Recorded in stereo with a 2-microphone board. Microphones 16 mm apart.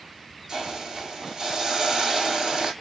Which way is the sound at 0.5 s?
40° right (ahead or behind).